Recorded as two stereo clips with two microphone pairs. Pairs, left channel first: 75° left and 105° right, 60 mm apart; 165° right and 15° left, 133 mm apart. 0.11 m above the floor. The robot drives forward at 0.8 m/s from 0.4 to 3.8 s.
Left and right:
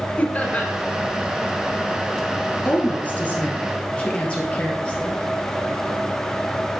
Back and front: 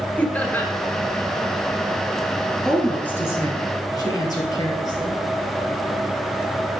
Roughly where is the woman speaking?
Left.